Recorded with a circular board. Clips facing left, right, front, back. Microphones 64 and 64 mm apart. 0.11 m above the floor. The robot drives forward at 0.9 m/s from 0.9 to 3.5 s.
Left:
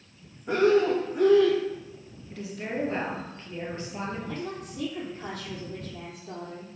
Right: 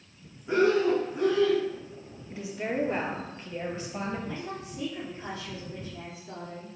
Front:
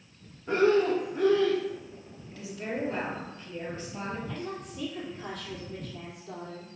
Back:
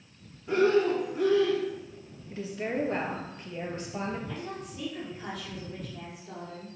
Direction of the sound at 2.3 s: 150° right.